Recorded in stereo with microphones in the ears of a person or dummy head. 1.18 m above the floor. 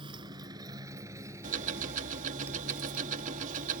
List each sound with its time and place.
0.0 s a motorcycle: 25° right (ahead or behind); by 3.8 s 5° right (ahead or behind)
1.4 s ticking: 45° right (ahead or behind)